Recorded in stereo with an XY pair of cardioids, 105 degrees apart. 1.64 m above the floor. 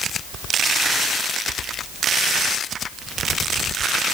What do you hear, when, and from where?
Only background noise.